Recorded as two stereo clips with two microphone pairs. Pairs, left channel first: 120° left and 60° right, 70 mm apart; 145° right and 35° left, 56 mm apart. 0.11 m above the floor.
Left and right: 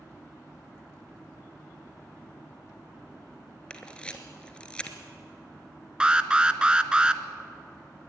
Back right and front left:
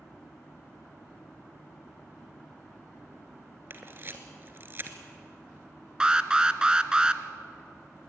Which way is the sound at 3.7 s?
55° left.